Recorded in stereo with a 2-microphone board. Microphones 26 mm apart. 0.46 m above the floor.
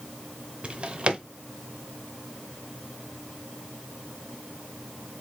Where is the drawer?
45° right (ahead or behind), 0.7 m.